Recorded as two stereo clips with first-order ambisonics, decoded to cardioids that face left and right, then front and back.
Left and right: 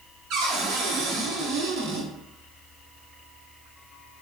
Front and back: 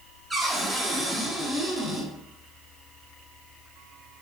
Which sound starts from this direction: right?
A cupboard door, at 0.3 s.